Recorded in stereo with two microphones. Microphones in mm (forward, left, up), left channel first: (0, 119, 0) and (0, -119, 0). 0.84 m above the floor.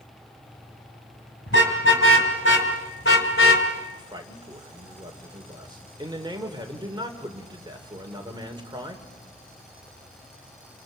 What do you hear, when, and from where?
1.5 s a car horn: 60° left (ahead or behind), 3.5 m; by 3.7 s 65° left (ahead or behind), 2 m
4.0 s a man speaking: 20° right (ahead or behind), 2.5 m